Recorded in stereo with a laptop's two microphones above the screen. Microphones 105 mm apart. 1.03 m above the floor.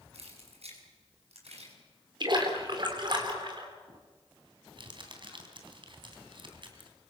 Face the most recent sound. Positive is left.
turn(degrees=-50)  # may be behind; listen again after turning